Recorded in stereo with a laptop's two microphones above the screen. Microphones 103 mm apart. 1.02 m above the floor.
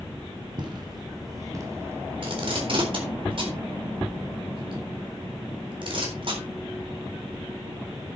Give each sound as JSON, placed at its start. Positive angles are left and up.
{"t": 0.6, "sound": "footsteps", "side_deg": -45, "distance_m": 2.5}
{"t": 2.2, "sound": "tape being pulled", "side_deg": -55, "distance_m": 4.0}